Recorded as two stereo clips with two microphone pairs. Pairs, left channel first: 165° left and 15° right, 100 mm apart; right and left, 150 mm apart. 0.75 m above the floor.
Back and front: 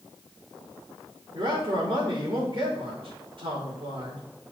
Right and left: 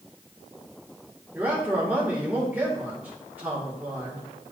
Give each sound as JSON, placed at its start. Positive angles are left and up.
{"t": 1.3, "sound": "a man speaking", "azimuth_deg": 10, "distance_m": 1.8}